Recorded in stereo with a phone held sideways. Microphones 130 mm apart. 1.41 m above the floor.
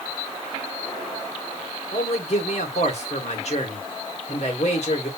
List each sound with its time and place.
1.9 s a man speaking: 60° left (ahead or behind), 2.5 m